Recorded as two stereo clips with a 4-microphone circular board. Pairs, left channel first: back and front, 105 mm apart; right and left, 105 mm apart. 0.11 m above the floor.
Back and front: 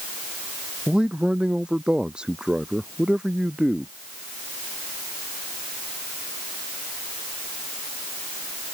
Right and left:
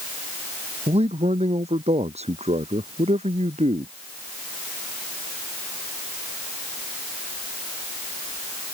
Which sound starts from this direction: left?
A man speaking, at 0.9 s.